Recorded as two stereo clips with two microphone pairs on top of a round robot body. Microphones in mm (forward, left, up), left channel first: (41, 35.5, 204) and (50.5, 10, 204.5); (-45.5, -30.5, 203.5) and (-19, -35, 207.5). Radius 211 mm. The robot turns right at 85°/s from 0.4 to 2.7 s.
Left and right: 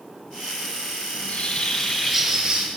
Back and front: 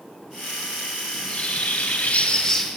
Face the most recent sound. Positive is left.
turn(degrees=-110)